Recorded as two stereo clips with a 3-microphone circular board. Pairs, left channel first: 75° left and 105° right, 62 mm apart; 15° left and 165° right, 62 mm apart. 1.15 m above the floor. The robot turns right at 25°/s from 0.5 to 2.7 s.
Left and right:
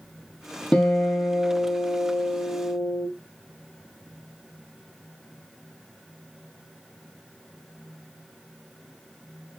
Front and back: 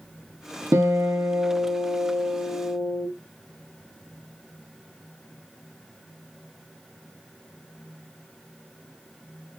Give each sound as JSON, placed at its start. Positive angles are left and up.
{"t": 0.7, "sound": "a guitar", "azimuth_deg": 155, "distance_m": 1.5}